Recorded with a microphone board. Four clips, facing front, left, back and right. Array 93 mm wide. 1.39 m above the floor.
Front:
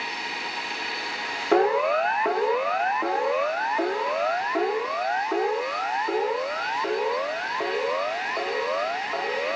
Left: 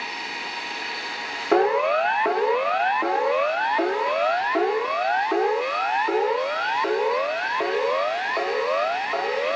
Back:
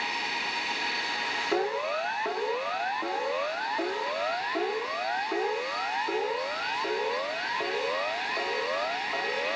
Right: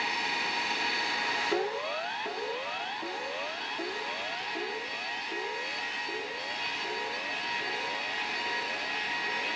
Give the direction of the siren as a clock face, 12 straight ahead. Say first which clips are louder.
Left 12 dB, front 10 dB; 10 o'clock.